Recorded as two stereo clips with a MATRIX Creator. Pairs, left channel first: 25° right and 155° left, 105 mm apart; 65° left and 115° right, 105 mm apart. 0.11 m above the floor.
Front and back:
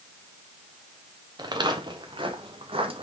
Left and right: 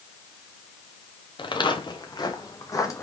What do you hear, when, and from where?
1.4 s footsteps: 110° left, 2 m; by 3.0 s 130° left, 2.5 m